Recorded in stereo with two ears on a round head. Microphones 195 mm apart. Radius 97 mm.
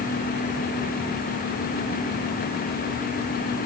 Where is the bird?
I don't hear a bird.